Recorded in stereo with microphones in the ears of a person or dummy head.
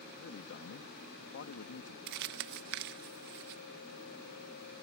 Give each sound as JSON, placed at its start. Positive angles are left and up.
{"t": 0.2, "sound": "a man speaking", "side_deg": 85}
{"t": 2.1, "sound": "crumpling", "side_deg": -55}